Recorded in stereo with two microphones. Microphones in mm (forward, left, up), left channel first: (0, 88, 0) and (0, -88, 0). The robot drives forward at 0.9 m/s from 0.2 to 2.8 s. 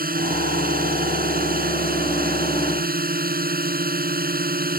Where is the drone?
55° right (ahead or behind); by 4.8 s 60° right (ahead or behind).